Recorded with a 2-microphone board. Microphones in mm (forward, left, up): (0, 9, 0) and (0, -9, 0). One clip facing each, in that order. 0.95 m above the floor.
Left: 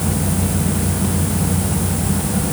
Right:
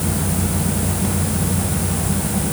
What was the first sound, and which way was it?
Only background noise.